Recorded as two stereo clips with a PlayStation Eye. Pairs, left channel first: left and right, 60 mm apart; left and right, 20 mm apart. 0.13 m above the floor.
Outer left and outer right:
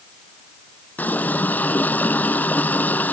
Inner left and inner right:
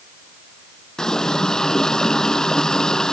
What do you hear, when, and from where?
1.0 s a running tap: 30° left (ahead or behind)